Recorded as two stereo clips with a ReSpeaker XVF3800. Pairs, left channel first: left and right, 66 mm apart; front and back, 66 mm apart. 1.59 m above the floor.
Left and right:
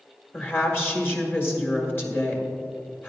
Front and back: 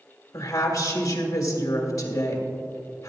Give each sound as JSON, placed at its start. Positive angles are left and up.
{"t": 0.3, "sound": "a woman speaking", "azimuth_deg": 35, "distance_m": 2.0}